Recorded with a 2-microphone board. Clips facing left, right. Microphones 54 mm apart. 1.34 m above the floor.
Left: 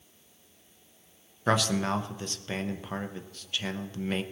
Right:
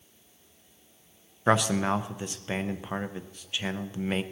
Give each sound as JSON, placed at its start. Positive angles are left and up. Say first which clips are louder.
{"t": 1.5, "sound": "a man speaking", "louder": "right 2 dB", "side_deg": -15, "distance_m": 0.7}